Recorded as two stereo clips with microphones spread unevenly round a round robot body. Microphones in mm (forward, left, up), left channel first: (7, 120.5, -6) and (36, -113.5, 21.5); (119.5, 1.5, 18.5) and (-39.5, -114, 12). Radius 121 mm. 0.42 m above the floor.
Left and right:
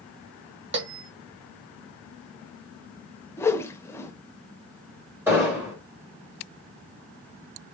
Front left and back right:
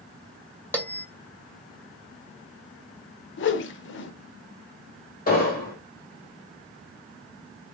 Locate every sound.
0.7 s a bell: 45° right, 1.8 m
3.4 s a whoosh: 20° left, 0.6 m
5.3 s an explosion: straight ahead, 2.5 m